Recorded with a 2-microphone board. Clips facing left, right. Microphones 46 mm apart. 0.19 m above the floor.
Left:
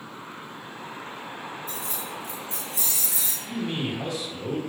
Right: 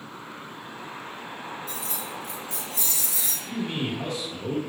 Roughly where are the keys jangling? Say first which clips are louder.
Even; left.